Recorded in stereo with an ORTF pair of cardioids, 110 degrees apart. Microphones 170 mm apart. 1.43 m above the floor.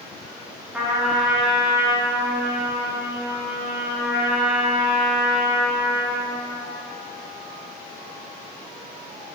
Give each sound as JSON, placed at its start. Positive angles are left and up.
{"t": 0.7, "sound": "a trumpet", "azimuth_deg": -5, "distance_m": 1.6}